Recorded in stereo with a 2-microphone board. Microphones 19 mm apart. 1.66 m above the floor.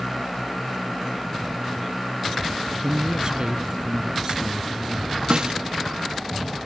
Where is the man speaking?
40° right (ahead or behind); by 5.1 s 35° right (ahead or behind).